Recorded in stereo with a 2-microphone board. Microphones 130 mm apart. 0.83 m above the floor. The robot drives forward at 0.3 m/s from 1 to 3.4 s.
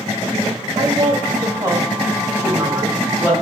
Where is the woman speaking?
30° right (ahead or behind), 0.5 m; by 3.3 s 15° right (ahead or behind), 1.1 m.